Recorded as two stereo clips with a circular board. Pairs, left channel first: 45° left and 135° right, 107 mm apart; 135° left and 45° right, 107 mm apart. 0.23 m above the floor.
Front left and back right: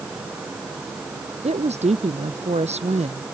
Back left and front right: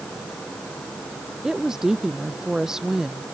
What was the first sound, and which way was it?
A woman speaking, 130° right.